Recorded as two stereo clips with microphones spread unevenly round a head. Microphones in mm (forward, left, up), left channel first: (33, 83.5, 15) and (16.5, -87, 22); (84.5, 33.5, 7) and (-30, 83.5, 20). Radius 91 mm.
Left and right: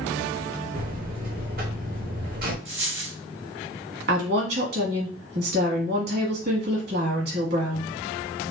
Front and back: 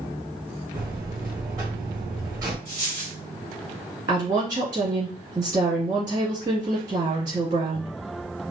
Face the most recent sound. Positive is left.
turn(degrees=-135)